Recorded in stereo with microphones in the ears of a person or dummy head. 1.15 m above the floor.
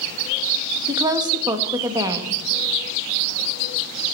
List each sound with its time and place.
0.9 s a woman speaking: 20° right (ahead or behind), 1.5 m